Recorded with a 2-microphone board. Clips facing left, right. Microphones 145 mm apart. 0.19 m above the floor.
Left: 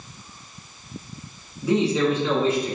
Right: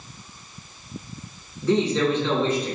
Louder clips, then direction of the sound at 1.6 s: Even; 10° left (ahead or behind).